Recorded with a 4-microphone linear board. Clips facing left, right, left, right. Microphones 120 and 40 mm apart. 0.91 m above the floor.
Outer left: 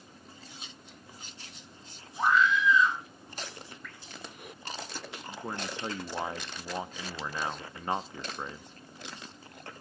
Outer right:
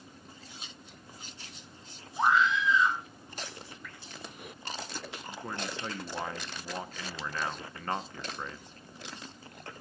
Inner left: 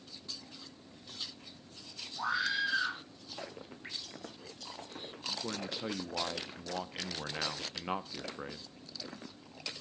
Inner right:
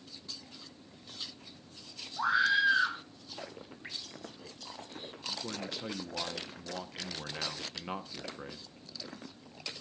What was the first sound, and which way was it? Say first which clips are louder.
A scream: even, inner right 6 dB; 25° right (ahead or behind).